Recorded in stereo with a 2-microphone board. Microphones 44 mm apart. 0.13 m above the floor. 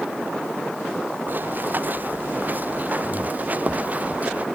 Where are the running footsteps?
45° right (ahead or behind); by 4.5 s 35° right (ahead or behind).